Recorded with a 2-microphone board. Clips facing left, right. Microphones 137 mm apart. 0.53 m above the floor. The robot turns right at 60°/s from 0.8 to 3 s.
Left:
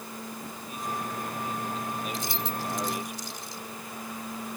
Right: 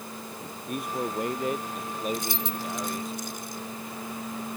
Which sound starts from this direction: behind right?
A man speaking, at 0.7 s.